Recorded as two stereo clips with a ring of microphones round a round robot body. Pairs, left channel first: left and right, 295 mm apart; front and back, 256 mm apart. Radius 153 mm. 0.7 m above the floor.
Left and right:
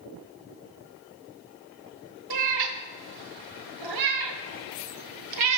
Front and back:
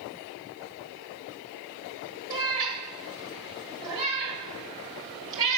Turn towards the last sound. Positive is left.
turn(degrees=-100)